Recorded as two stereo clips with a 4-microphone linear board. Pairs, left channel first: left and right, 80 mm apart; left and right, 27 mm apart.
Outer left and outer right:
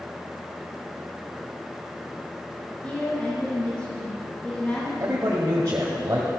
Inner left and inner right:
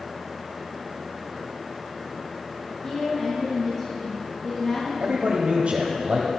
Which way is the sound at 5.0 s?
40° right (ahead or behind).